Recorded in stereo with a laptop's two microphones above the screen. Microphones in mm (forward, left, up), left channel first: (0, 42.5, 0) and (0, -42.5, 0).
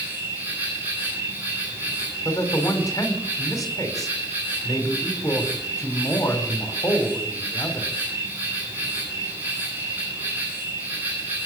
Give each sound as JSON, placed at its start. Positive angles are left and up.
{"t": 0.0, "sound": "an insect", "side_deg": -25, "distance_m": 9.0}
{"t": 2.2, "sound": "a man speaking", "side_deg": 40, "distance_m": 4.0}